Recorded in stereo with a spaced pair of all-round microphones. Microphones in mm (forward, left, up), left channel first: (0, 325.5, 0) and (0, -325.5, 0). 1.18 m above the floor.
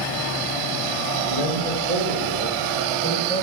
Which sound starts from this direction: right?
A man speaking, at 1.3 s.